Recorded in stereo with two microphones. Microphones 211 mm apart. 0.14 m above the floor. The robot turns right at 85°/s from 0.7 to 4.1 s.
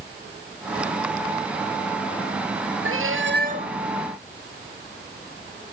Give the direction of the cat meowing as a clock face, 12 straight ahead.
3 o'clock.